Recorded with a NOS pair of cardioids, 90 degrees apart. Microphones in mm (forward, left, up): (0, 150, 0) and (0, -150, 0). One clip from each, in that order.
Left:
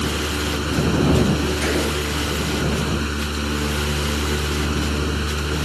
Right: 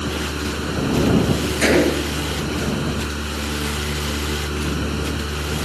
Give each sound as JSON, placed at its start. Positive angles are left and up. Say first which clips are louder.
{"t": 0.0, "sound": "a fan", "louder": "left 2 dB", "azimuth_deg": 15}
{"t": 1.6, "sound": "a gunshot", "louder": "right 5 dB", "azimuth_deg": -55}